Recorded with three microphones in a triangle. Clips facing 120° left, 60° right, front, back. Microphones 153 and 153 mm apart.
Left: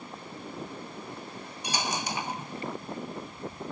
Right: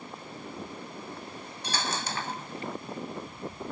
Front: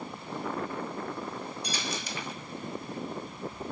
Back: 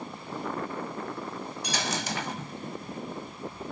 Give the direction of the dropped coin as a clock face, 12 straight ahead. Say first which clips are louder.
Left 1 dB, back 4 dB; 6 o'clock.